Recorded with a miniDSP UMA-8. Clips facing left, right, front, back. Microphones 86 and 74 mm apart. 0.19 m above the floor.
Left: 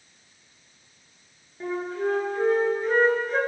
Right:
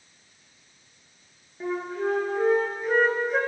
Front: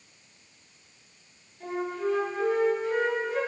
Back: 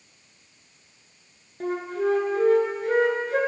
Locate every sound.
1.6 s a flute: 175° right, 2.5 m